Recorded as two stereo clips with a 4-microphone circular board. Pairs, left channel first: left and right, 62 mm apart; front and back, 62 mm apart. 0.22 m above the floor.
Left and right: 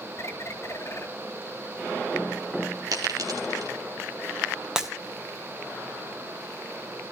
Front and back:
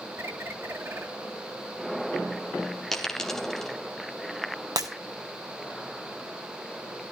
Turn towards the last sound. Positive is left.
turn(degrees=-170)